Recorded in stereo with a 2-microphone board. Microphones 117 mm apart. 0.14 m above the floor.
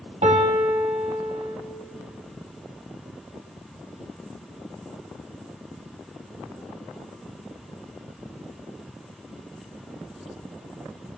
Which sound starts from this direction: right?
A piano, at 0.2 s.